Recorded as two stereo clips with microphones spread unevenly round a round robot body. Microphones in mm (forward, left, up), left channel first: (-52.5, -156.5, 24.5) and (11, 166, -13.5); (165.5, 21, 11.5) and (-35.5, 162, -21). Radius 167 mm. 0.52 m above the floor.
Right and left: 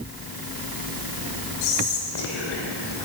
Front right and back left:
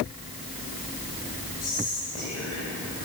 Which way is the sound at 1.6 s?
100° right.